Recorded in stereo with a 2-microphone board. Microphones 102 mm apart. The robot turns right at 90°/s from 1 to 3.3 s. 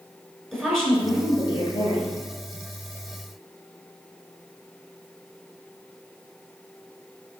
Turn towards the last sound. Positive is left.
turn(degrees=-150)